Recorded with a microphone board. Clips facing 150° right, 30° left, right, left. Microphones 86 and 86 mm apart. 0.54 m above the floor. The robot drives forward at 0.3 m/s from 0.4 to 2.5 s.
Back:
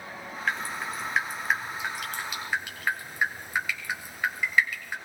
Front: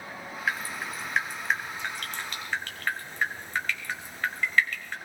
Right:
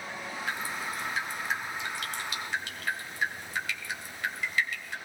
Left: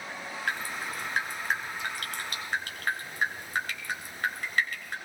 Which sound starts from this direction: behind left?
Dripping, at 0.5 s.